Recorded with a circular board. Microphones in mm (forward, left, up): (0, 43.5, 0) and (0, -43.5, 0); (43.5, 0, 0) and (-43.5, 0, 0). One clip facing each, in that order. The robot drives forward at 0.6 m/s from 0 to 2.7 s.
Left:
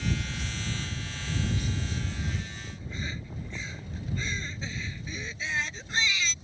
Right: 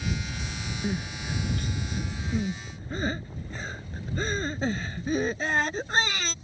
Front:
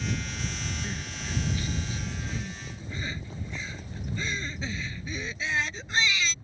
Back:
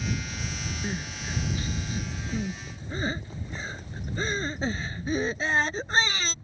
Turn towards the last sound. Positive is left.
turn(degrees=-130)